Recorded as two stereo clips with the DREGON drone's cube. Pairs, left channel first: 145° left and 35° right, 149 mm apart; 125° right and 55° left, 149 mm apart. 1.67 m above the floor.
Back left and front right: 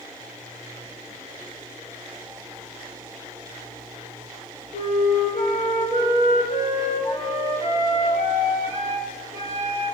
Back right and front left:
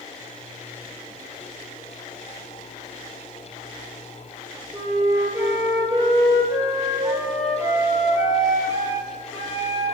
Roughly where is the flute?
Behind left.